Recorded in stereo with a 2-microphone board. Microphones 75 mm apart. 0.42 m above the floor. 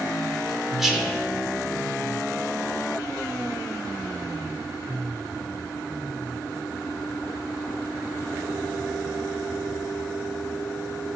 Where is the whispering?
5° right (ahead or behind), 0.9 m.